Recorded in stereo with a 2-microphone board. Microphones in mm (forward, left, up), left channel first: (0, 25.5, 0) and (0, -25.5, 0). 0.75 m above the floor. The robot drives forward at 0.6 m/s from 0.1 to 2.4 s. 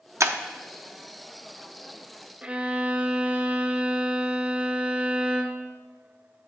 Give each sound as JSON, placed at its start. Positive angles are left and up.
{"t": 0.2, "sound": "breaking glass", "side_deg": -75, "distance_m": 0.7}
{"t": 2.4, "sound": "a violin", "side_deg": -20, "distance_m": 0.9}